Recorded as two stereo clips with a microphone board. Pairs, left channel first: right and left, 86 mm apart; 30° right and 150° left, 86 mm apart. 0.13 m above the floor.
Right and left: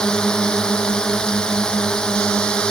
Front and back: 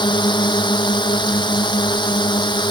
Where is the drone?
10° right.